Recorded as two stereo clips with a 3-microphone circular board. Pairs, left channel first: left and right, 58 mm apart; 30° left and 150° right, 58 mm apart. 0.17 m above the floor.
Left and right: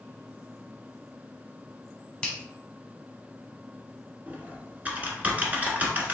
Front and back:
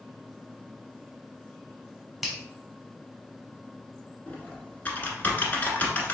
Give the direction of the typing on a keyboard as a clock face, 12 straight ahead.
1 o'clock.